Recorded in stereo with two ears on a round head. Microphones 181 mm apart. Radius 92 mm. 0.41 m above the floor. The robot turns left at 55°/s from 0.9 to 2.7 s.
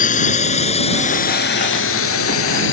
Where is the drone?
40° left (ahead or behind); by 2.7 s 65° left (ahead or behind).